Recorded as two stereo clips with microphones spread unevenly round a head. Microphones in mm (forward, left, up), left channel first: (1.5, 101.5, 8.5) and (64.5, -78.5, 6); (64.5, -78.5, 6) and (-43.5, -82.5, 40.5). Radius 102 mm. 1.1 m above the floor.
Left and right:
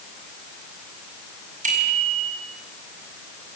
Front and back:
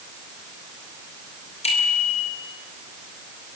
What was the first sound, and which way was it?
A bicycle bell, 20° right.